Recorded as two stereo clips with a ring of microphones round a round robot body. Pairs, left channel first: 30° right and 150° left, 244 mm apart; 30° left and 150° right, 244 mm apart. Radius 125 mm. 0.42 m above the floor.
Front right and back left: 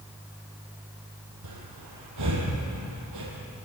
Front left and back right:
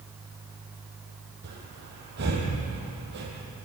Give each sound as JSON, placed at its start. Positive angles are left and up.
{"t": 1.4, "sound": "breathing", "azimuth_deg": 160, "distance_m": 6.5}